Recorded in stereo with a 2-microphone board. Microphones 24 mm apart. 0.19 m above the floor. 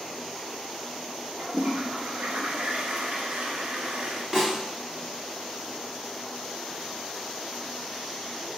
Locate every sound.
1.4 s a toilet flushing: 70° right (ahead or behind), 0.8 m
4.3 s a snare drum: 20° right (ahead or behind), 1.3 m